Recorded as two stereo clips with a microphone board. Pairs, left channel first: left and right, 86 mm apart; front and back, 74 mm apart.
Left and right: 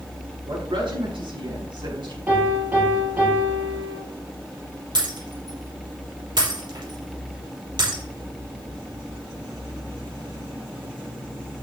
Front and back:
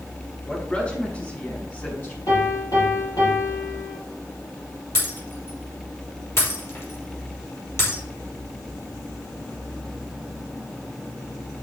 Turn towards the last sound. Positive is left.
turn(degrees=-55)